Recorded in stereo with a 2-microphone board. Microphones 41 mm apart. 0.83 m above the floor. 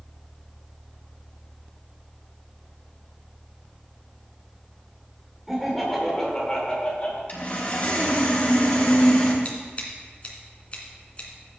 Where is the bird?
No bird in this recording.